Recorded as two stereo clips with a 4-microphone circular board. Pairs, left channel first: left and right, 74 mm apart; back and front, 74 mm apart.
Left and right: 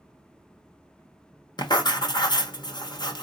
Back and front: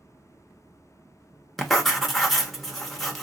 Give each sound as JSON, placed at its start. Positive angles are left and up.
{"t": 1.6, "sound": "writing", "azimuth_deg": 95, "distance_m": 1.0}